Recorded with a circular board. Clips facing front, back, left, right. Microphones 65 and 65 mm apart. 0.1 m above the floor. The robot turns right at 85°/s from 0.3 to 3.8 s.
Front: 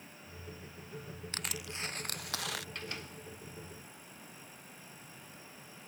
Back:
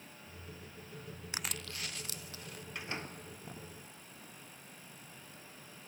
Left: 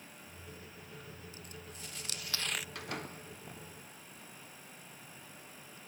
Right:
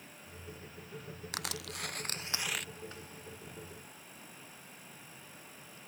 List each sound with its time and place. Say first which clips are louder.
1.3 s crushing: even, right 8 dB; 105° right; by 2.6 s 5° left
2.8 s a door slam: back 1 dB, left 5 dB; 100° left; by 3.6 s 175° left